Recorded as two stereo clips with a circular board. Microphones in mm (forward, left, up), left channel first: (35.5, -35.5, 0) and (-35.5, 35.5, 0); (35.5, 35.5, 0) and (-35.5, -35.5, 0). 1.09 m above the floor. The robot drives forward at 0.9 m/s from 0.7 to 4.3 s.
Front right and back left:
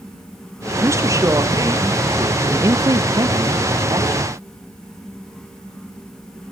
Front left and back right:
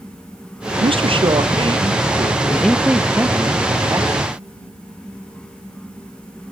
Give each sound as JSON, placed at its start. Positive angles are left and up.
{"t": 0.8, "sound": "a man speaking", "azimuth_deg": -160, "distance_m": 0.6}
{"t": 2.5, "sound": "a man speaking", "azimuth_deg": 100, "distance_m": 0.6}